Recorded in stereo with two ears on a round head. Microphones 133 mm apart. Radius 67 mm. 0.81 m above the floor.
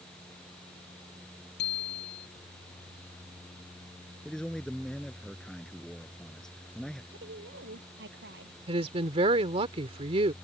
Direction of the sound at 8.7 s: 40° right (ahead or behind).